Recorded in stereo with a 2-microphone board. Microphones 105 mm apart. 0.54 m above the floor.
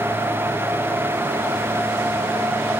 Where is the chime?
No chime in this recording.